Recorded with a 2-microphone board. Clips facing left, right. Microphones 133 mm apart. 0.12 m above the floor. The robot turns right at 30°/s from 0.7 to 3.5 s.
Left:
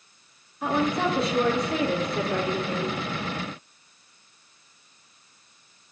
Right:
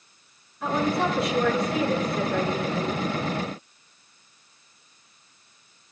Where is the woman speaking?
15° left, 4 m; by 3.0 s 85° left, 4 m.